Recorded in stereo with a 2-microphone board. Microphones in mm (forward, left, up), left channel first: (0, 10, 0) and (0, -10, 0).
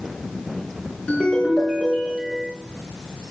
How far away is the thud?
I don't hear a thud.